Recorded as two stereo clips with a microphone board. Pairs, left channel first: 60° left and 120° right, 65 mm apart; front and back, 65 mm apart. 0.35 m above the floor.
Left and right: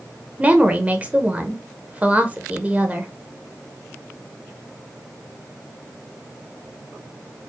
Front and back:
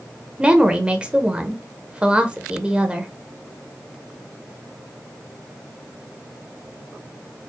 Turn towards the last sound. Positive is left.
turn(degrees=-135)